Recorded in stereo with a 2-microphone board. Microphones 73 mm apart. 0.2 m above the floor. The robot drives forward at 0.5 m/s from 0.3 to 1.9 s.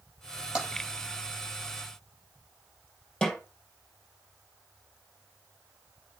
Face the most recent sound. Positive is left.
turn(degrees=10)  # may be behind; listen again after turning